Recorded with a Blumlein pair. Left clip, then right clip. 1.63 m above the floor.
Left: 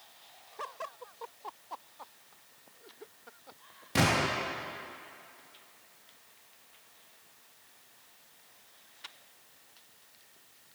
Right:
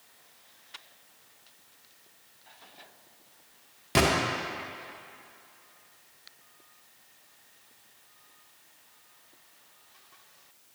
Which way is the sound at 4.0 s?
50° right.